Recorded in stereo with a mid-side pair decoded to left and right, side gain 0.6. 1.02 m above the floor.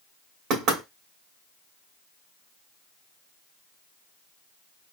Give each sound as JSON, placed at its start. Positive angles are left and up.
{"t": 0.5, "sound": "knocking", "azimuth_deg": -65, "distance_m": 2.5}